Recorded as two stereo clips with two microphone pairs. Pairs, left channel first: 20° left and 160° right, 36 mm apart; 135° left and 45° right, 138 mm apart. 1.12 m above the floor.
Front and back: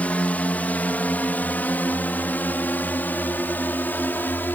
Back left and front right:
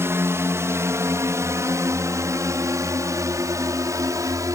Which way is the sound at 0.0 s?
15° left.